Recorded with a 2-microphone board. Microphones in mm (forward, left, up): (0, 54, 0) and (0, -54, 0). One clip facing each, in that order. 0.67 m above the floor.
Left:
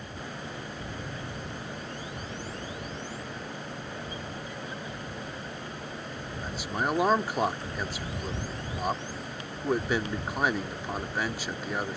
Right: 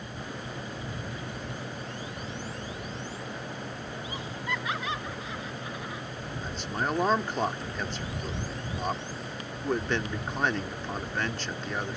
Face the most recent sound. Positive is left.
turn(degrees=10)  # may be behind; listen again after turning